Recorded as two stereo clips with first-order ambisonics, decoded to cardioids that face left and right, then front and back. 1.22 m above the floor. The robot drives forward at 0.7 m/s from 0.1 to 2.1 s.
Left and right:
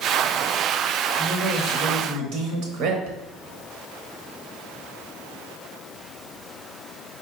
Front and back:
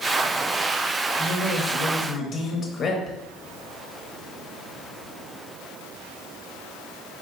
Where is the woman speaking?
35° right, 1.3 m; by 3.2 s 65° right, 0.9 m.